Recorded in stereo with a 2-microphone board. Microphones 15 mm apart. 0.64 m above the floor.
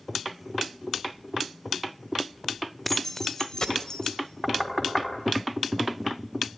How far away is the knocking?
About 4 m.